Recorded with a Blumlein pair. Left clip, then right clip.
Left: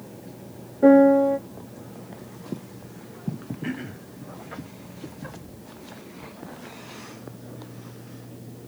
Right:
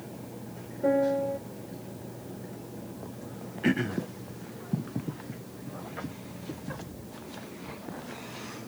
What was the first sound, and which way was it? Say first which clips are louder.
A piano: left 10 dB; 40° left.